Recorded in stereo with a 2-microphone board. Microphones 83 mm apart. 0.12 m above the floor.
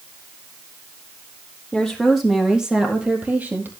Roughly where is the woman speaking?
Centre.